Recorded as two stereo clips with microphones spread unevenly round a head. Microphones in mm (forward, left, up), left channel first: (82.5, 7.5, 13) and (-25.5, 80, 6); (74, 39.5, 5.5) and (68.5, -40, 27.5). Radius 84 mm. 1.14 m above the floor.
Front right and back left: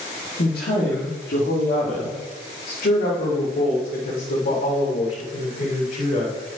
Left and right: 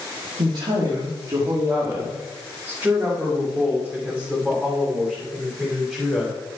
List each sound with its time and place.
0.4 s a woman speaking: 65° right, 1.9 m; by 6.4 s 10° right, 4 m